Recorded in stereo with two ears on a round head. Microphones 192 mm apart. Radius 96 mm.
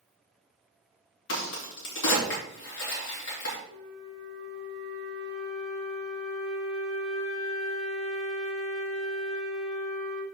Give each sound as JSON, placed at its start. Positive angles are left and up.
{"t": 1.3, "sound": "a crack", "side_deg": 70, "distance_m": 2.5}
{"t": 3.7, "sound": "a flute", "side_deg": 0, "distance_m": 3.5}